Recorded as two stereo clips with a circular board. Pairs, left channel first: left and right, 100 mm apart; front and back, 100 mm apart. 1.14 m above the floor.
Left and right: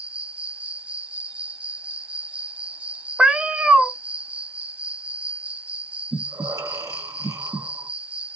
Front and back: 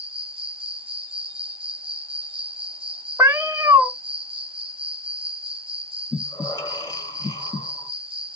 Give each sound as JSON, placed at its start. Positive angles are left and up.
{"t": 0.0, "sound": "an insect", "azimuth_deg": -165, "distance_m": 0.7}
{"t": 3.2, "sound": "a cat meowing", "azimuth_deg": -165, "distance_m": 0.7}
{"t": 6.1, "sound": "breathing", "azimuth_deg": -40, "distance_m": 1.8}